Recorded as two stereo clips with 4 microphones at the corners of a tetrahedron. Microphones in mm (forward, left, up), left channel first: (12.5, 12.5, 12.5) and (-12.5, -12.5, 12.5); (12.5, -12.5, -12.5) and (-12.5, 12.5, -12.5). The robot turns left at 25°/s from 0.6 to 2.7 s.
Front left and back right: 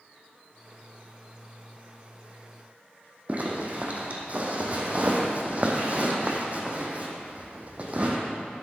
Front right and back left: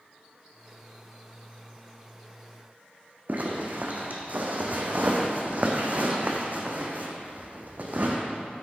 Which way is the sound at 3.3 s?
175° left.